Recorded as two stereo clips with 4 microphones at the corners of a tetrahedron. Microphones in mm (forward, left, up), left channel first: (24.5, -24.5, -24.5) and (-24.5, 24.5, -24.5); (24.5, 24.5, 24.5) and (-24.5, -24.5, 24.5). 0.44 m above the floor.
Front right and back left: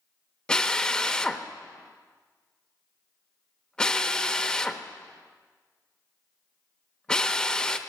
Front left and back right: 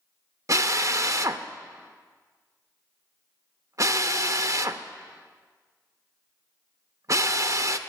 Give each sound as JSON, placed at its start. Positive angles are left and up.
{"t": 0.5, "sound": "a drill", "azimuth_deg": -120, "distance_m": 0.6}